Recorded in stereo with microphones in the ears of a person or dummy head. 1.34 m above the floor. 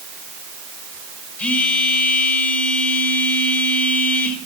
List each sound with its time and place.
1.4 s a phone buzzing: 10° left (ahead or behind), 6.5 m